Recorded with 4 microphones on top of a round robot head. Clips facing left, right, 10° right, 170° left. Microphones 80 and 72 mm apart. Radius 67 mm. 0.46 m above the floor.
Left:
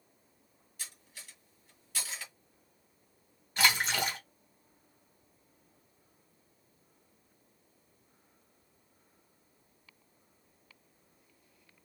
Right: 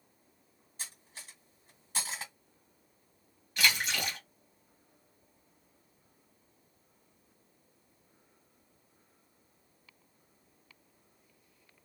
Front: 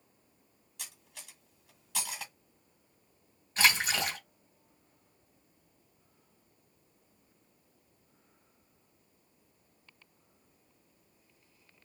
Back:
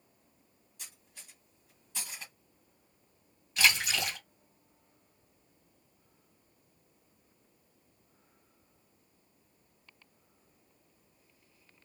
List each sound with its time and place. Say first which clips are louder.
0.8 s cutlery clinking: right 2 dB, front 4 dB; 30° right, 1.7 m
3.6 s a splash: left 2 dB, front 1 dB; 35° left, 2.0 m